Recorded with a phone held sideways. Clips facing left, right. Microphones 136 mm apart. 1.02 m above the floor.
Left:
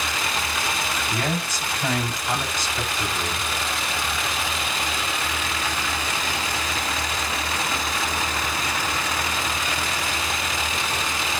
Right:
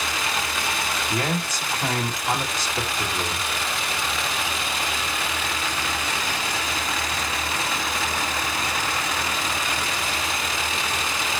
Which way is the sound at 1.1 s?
45° right (ahead or behind).